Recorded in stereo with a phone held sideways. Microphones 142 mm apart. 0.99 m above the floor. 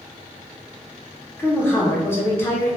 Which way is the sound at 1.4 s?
15° left (ahead or behind).